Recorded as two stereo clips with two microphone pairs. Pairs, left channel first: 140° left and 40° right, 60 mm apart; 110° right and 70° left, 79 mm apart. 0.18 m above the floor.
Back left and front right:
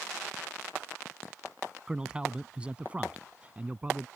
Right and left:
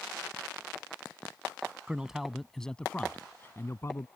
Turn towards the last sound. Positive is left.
turn(degrees=-90)